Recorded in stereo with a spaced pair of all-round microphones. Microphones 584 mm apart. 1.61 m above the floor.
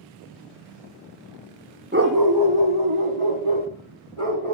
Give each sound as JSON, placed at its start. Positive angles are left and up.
{"t": 1.9, "sound": "a dog barking", "side_deg": -20, "distance_m": 1.0}